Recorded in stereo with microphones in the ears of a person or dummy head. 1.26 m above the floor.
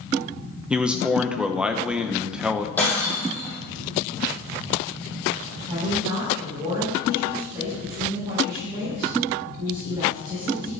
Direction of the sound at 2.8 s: 5° left (ahead or behind).